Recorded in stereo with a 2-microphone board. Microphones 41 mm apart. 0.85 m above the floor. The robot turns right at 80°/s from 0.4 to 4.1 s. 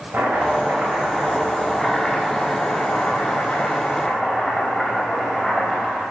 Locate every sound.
0.1 s chopping: 125° right, 4.5 m; by 6.0 s 170° left, 4.5 m